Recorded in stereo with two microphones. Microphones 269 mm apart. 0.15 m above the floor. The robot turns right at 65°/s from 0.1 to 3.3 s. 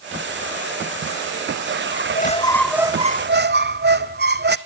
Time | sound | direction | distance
1.9 | a squeak | 130° left | 0.8 m